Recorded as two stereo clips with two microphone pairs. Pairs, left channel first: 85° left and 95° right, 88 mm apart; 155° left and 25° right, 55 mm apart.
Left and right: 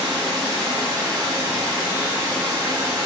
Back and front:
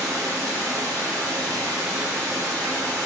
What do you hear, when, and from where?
0.0 s running water: 15° right, 3.5 m